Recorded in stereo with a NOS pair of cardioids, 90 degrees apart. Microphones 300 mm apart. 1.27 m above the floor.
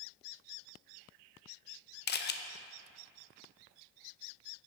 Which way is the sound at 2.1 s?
35° left.